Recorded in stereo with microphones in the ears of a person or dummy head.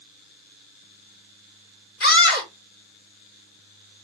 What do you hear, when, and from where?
2.0 s a scream: 60° left (ahead or behind), 3.5 m